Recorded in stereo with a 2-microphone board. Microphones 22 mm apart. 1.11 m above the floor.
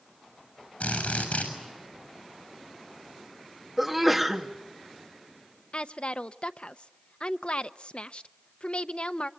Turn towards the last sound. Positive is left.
turn(degrees=55)  # may be behind; listen again after turning